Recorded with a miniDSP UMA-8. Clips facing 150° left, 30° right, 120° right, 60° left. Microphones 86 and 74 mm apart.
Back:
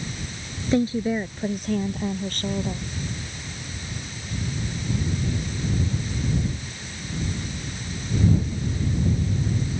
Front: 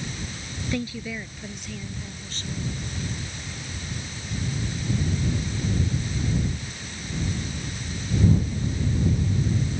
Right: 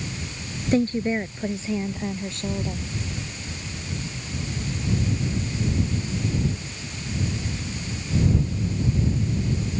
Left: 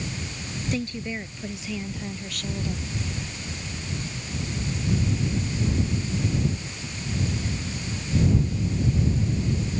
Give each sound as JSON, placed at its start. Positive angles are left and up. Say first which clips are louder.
{"t": 0.7, "sound": "a woman speaking", "louder": "back 9 dB, right 10 dB", "azimuth_deg": -155}